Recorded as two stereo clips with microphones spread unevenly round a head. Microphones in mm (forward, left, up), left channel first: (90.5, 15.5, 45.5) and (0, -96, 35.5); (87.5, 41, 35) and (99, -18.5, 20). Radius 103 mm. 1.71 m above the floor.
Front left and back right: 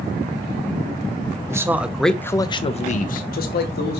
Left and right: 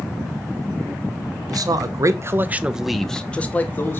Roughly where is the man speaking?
Ahead right.